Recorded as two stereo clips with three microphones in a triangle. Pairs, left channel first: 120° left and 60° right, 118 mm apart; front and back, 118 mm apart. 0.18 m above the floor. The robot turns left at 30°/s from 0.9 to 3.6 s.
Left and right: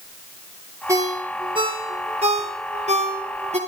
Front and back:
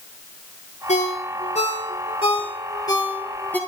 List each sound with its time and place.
0.9 s a ringtone: 5° left, 2.5 m; by 3.6 s 80° right, 2.5 m